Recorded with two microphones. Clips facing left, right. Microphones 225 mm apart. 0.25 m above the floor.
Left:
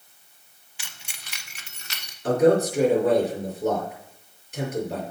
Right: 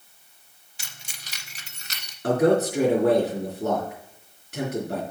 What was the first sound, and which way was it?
Keys jangling, 40° right (ahead or behind).